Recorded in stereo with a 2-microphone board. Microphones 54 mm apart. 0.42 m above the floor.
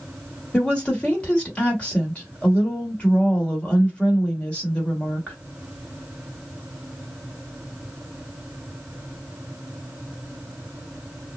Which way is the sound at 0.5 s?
20° left (ahead or behind).